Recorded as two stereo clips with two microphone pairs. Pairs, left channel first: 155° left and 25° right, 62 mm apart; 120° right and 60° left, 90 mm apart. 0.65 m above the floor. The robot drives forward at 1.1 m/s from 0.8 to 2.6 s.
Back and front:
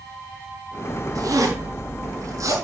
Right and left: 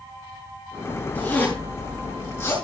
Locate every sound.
1.1 s a zipper: 45° right, 6.5 m; by 2.5 s 55° right, 5.5 m